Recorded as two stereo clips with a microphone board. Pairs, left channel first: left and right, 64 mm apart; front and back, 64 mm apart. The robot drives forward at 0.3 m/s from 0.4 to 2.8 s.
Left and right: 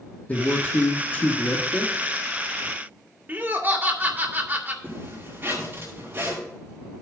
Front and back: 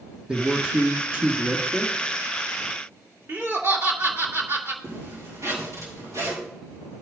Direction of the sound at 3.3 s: 140° right.